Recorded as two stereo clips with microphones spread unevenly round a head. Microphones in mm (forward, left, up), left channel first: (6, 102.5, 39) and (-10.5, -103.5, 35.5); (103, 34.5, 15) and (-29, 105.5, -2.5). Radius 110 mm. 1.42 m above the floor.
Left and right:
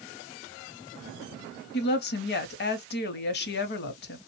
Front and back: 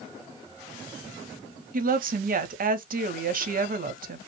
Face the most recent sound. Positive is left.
turn(degrees=125)